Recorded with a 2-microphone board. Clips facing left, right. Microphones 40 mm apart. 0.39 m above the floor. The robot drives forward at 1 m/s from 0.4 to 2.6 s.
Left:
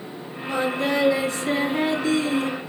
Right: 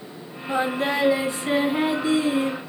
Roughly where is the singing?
Centre.